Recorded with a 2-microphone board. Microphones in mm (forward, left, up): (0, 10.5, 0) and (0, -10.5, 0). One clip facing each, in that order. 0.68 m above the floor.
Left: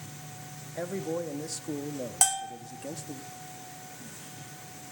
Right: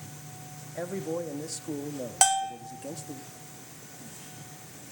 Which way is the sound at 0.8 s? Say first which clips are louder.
Even; 15° left (ahead or behind).